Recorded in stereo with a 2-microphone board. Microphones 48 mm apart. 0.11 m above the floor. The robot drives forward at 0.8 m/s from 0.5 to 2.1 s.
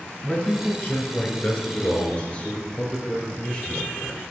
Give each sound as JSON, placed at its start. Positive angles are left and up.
{"t": 0.2, "sound": "a man speaking", "side_deg": 30, "distance_m": 1.3}